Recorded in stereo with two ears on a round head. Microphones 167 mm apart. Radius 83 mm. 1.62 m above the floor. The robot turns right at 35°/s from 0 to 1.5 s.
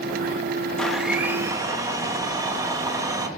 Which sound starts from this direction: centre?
A blender, at 0.8 s.